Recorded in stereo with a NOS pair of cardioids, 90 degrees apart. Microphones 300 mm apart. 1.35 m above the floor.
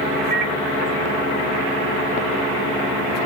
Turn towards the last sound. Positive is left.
turn(degrees=-70)